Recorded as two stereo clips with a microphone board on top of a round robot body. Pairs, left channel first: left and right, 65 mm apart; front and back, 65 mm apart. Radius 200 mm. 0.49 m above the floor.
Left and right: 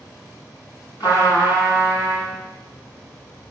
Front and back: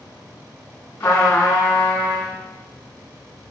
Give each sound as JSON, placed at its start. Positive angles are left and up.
{"t": 1.0, "sound": "a trumpet", "azimuth_deg": 60, "distance_m": 5.5}